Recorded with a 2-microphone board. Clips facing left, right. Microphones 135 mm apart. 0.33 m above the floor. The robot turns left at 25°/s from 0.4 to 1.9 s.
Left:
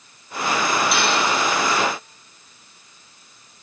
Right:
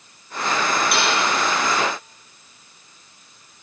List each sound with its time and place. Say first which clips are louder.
0.9 s dishes clattering: left 1 dB; 55° right (ahead or behind), 7 m; by 1.2 s 60° right (ahead or behind), 7 m